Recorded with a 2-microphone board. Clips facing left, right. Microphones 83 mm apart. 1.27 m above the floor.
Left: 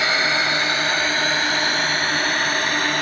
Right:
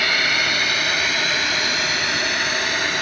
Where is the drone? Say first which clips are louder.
Left 1 dB; 25° left (ahead or behind); by 3.0 s 40° left (ahead or behind).